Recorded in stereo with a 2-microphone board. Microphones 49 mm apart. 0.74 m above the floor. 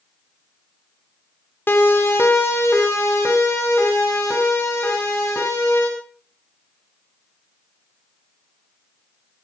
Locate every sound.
1.7 s a siren: 45° left (ahead or behind), 3 m; by 5.9 s 80° left, 9 m